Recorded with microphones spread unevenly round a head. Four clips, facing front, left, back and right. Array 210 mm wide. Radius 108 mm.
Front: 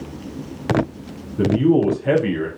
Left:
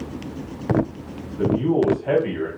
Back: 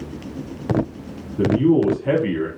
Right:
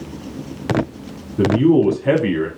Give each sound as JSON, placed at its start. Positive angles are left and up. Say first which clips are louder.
{"t": 1.4, "sound": "a man speaking", "louder": "right 6 dB, even", "azimuth_deg": -45, "distance_m": 2.5}